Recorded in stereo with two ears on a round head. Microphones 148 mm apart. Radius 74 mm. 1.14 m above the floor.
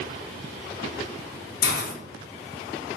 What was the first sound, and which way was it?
A hiss, 60° left (ahead or behind).